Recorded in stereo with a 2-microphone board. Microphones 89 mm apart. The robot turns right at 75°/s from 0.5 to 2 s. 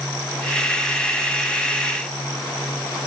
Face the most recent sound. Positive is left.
No sound to turn to.